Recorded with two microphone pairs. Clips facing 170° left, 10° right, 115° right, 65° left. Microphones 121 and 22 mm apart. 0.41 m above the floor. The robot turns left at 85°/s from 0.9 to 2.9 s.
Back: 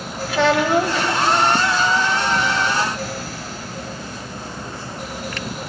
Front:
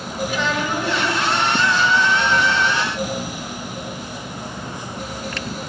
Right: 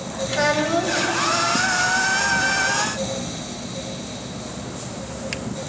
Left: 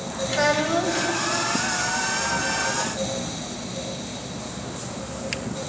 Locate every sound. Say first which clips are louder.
0.3 s a child speaking: back 8 dB, right 1 dB; 165° left, 1.2 m; by 1.1 s 150° left, 1.2 m